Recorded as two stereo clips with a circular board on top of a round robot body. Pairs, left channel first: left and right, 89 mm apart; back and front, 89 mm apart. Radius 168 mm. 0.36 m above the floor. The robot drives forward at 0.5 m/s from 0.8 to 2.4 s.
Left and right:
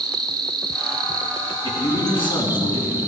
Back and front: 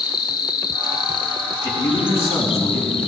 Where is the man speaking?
120° left, 4.5 m; by 3.0 s 125° left, 4.5 m.